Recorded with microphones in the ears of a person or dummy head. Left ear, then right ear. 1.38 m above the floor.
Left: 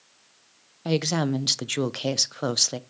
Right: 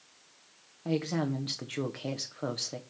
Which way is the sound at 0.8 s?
90° left.